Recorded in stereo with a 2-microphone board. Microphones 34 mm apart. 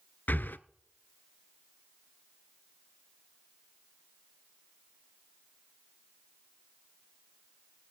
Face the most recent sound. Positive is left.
turn(degrees=65)  # may be behind; listen again after turning